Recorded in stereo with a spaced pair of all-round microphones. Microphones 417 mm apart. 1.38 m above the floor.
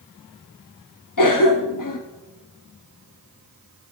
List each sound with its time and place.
1.2 s a cough: 50° left (ahead or behind), 0.6 m